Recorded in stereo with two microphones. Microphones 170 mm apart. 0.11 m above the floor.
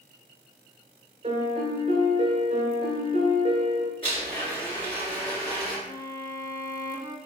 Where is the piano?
40° right (ahead or behind), 0.5 m.